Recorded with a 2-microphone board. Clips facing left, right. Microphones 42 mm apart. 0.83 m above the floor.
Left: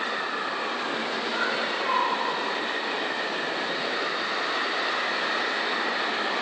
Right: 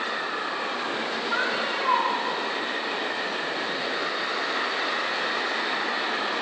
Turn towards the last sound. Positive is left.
turn(degrees=-40)  # may be behind; listen again after turning